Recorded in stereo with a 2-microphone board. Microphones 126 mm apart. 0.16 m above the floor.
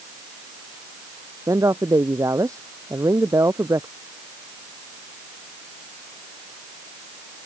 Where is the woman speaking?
25° right (ahead or behind).